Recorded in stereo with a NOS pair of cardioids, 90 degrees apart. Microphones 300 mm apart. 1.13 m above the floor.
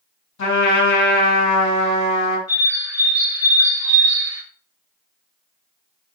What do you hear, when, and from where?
0.4 s a trumpet: 65° left, 1.6 m
2.5 s a bird: 60° left, 1.5 m